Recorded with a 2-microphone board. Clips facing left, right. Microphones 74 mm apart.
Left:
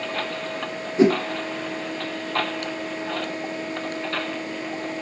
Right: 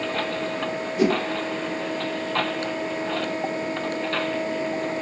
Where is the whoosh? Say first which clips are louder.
Left 4 dB; 25° left (ahead or behind), 0.7 m.